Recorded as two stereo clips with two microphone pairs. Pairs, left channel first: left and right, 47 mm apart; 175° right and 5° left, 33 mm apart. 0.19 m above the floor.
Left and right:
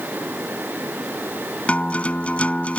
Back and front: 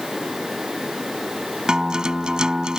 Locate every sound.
1.7 s a guitar: 50° left